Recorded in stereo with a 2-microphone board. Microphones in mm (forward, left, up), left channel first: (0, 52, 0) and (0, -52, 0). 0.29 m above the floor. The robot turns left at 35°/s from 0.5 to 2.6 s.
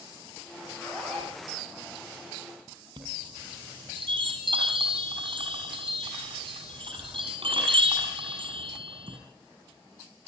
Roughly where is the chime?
Right.